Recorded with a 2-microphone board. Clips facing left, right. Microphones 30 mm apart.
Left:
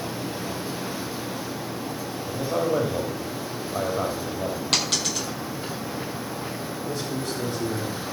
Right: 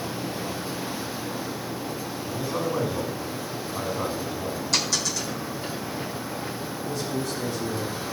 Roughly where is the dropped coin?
Left.